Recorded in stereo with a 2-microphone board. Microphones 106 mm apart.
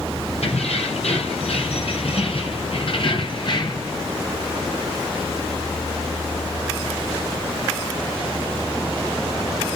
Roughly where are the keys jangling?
Left.